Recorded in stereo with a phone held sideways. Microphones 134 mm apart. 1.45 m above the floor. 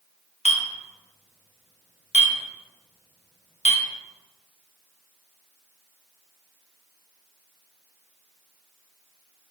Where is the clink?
55° left (ahead or behind), 0.7 m.